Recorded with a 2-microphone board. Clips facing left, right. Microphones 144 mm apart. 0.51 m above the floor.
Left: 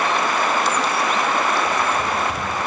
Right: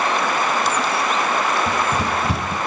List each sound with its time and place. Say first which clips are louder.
1.7 s running footsteps: even; 75° right (ahead or behind), 6 m